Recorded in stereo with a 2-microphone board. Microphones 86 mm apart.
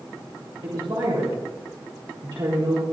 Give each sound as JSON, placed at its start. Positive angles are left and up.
{"t": 0.6, "sound": "a woman speaking", "side_deg": -65, "distance_m": 3.5}